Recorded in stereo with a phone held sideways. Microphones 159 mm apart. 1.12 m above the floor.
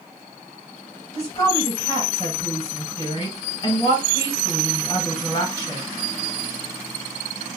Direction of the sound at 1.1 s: 40° left (ahead or behind).